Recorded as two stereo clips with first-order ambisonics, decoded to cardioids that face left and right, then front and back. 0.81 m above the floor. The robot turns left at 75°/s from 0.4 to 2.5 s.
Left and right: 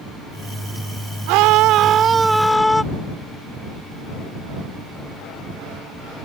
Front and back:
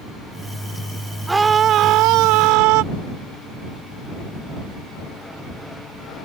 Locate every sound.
1.3 s a scream: 95° right; by 2.8 s 175° left